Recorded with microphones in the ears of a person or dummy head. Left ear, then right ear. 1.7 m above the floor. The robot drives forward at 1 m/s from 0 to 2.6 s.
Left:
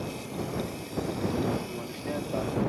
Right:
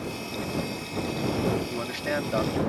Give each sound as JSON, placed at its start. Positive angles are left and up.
{"t": 1.7, "sound": "a man speaking", "side_deg": -50}